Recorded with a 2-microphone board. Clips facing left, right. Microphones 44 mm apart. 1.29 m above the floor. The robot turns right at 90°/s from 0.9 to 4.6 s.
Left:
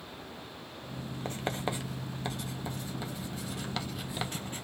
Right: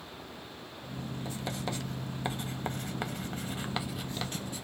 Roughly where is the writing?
Left.